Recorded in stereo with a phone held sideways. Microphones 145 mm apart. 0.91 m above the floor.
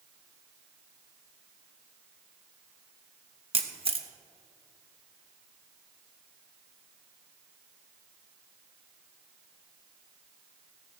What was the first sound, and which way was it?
A camera shutter, 40° right (ahead or behind).